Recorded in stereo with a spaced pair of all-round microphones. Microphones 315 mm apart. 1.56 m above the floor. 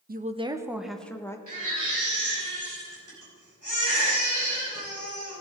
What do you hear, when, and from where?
0.1 s a woman speaking: 30° right (ahead or behind), 0.7 m; by 1.4 s 10° left (ahead or behind), 1.3 m
1.5 s a baby crying: 80° right, 5 m